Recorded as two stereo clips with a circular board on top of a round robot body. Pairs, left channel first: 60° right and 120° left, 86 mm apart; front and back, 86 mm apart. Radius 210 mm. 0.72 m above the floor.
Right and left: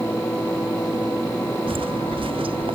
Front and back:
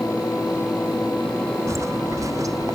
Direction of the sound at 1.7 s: 125° left.